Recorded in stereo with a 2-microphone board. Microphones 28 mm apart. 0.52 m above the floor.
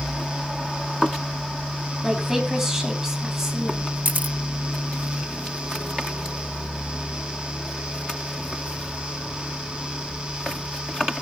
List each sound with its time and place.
2.0 s a woman speaking: 15° right (ahead or behind), 4 m
4.0 s a camera shutter: 70° right (ahead or behind), 0.7 m